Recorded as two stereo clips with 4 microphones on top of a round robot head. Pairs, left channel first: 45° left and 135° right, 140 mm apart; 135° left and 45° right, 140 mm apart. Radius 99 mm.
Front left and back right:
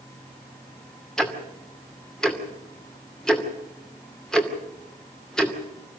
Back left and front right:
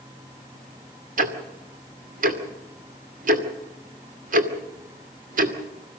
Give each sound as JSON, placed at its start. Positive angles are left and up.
{"t": 1.2, "sound": "ticking", "azimuth_deg": -40, "distance_m": 2.5}